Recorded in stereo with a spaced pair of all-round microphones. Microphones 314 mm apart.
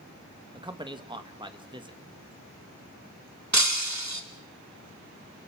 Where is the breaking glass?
60° right (ahead or behind), 2 m.